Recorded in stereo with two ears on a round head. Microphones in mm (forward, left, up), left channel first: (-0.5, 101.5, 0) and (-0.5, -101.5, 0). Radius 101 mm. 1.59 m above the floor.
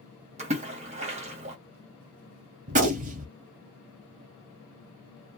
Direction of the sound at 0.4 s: 30° right (ahead or behind).